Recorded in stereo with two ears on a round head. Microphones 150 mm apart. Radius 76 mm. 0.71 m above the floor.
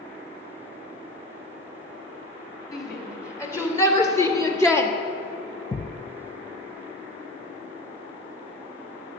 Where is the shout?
20° left (ahead or behind), 3 m; by 4.9 s 15° left (ahead or behind), 1.1 m.